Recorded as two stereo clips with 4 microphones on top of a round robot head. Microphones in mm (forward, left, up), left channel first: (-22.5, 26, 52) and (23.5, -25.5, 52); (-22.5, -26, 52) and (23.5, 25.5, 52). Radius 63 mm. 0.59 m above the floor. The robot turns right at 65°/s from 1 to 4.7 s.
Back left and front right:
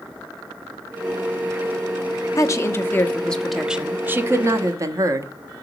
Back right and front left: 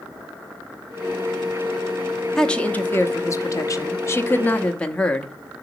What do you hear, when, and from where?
2.4 s a woman speaking: 145° left, 1.1 m; by 5.3 s 60° right, 1.1 m